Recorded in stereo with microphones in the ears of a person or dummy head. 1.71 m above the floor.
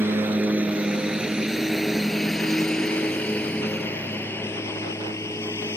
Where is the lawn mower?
10° right (ahead or behind); by 5.8 s 15° left (ahead or behind).